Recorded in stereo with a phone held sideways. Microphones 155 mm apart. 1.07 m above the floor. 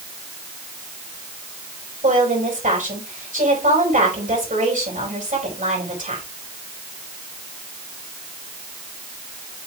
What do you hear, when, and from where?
2.0 s a woman speaking: 60° right (ahead or behind), 5.5 m